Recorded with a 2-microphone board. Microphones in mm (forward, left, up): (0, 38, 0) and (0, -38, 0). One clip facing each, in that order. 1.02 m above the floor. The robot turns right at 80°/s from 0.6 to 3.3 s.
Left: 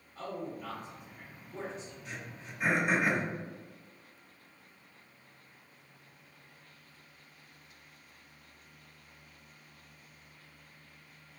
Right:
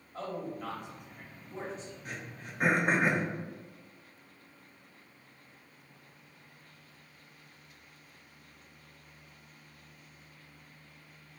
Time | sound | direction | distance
0.1 | a man speaking | 85° right | 1.1 m
2.0 | throat clearing | 45° right (ahead or behind) | 0.5 m